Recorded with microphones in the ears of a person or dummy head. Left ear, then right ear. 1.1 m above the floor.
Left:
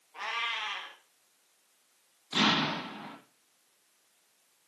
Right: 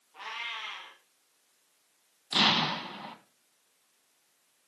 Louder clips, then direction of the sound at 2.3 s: Right 2 dB; 30° right (ahead or behind).